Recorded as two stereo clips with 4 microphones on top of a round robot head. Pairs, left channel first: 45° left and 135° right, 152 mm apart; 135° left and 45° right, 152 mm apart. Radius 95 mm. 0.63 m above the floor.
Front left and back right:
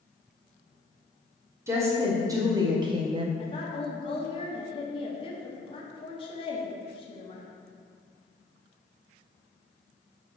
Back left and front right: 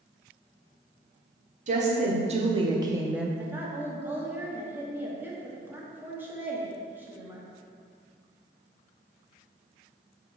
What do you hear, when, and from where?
1.7 s a woman speaking: 65° right, 1.3 m; by 3.3 s 130° right, 0.6 m
3.4 s a woman speaking: 25° left, 1.4 m